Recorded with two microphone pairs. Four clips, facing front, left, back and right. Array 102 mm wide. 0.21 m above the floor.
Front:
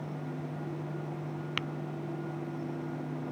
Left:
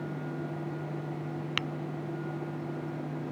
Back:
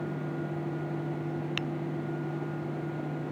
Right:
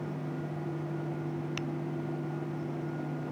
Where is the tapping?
75° left.